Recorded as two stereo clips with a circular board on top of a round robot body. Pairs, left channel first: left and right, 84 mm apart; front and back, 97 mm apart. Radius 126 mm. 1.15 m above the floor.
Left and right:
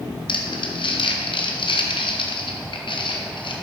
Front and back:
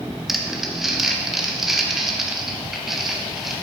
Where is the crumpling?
95° left, 1.9 m.